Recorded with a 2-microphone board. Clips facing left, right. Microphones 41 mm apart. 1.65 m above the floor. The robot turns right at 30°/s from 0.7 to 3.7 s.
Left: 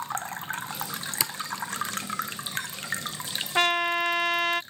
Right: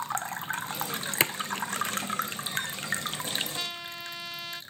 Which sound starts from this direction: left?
A trumpet, at 3.5 s.